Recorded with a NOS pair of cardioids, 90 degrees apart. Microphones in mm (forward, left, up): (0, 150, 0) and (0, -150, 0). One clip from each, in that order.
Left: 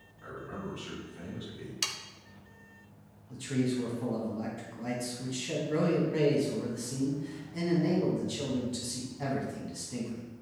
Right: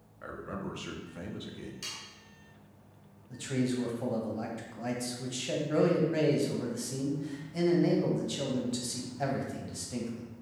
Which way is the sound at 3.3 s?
25° right.